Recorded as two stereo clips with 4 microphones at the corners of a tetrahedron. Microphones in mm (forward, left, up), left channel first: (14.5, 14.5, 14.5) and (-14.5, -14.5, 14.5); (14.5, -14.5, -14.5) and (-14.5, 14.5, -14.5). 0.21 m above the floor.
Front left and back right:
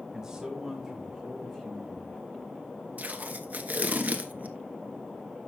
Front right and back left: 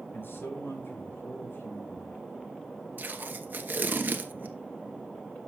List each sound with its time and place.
0.1 s a man speaking: 60° right, 3.5 m; by 2.2 s 20° right, 3 m
3.0 s tape being pulled: 175° left, 0.9 m